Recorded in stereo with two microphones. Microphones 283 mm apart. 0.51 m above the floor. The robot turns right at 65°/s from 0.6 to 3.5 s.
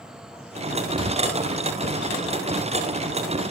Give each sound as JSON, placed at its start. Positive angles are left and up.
{"t": 1.0, "sound": "a thud", "side_deg": -20, "distance_m": 5.5}